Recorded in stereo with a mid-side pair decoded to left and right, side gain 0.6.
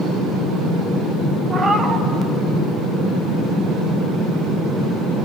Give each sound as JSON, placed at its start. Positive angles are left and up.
{"t": 1.5, "sound": "a cat meowing", "azimuth_deg": -25, "distance_m": 1.2}